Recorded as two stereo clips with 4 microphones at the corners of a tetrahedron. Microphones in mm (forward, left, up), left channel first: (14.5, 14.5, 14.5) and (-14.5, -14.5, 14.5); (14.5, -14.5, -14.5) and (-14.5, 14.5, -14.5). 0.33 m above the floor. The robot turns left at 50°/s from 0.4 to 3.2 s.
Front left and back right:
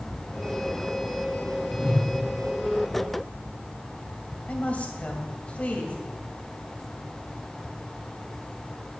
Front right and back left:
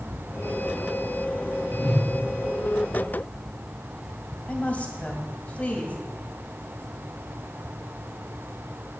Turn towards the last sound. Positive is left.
turn(degrees=0)